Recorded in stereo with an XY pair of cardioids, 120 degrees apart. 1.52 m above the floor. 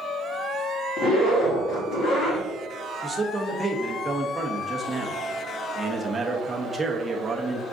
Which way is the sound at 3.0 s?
15° right.